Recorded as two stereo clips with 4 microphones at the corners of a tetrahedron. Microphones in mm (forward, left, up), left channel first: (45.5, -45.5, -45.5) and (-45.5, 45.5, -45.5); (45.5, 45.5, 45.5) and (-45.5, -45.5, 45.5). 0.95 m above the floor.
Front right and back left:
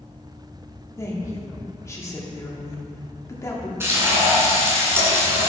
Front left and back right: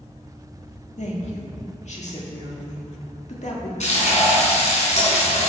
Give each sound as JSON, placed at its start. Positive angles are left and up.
{"t": 1.0, "sound": "a woman speaking", "azimuth_deg": 20, "distance_m": 1.7}
{"t": 3.8, "sound": "frying", "azimuth_deg": 65, "distance_m": 2.5}